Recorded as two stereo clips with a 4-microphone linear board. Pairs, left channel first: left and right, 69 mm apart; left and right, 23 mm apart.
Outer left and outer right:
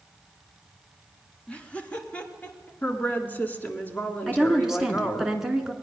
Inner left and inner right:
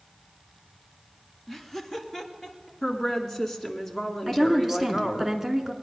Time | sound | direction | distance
1.5 | laughter | 15° left (ahead or behind) | 1.2 m
2.8 | a woman speaking | 25° left (ahead or behind) | 1.4 m
4.3 | a woman speaking | 5° right (ahead or behind) | 1.3 m